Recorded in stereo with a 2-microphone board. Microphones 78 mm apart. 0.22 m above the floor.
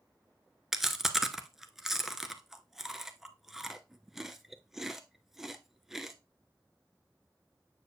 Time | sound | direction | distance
0.7 | chewing | 5° right (ahead or behind) | 0.6 m